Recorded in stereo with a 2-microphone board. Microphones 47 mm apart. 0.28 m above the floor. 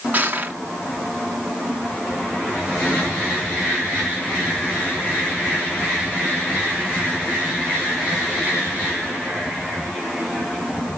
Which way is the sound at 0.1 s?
35° right (ahead or behind).